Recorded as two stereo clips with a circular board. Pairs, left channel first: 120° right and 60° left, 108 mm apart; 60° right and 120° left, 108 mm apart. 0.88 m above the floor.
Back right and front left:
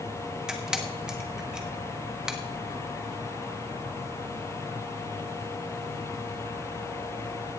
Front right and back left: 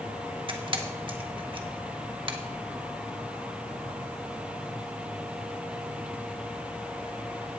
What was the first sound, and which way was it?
A camera shutter, 145° left.